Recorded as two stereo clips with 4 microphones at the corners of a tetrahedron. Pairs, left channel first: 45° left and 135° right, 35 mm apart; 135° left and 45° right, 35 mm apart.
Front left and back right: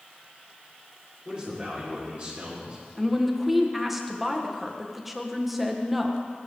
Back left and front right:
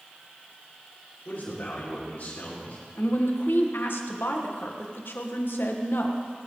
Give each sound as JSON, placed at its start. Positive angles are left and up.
{"t": 1.2, "sound": "a man speaking", "azimuth_deg": 165, "distance_m": 4.5}
{"t": 3.0, "sound": "a woman speaking", "azimuth_deg": 140, "distance_m": 1.6}